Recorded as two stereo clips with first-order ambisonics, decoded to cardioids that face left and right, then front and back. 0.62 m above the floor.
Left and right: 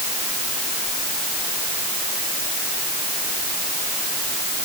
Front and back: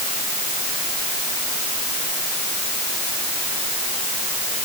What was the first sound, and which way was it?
Only background noise.